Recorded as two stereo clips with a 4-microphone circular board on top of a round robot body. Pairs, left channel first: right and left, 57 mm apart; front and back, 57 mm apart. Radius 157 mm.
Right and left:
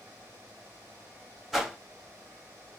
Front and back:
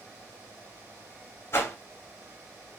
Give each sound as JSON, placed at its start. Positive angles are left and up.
{"t": 1.5, "sound": "a whoosh", "azimuth_deg": 5, "distance_m": 1.3}